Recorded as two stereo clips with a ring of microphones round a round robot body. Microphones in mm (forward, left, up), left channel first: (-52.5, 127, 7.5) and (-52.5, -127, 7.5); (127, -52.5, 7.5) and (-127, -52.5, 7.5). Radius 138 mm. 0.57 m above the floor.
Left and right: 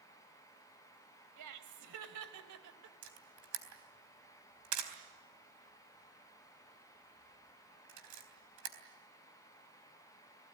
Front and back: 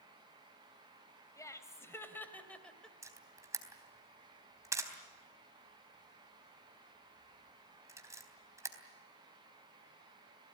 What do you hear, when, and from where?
1.4 s laughter: 80° right, 3 m; by 2.9 s 90° right, 2.5 m
3.0 s a camera shutter: 100° right, 3.5 m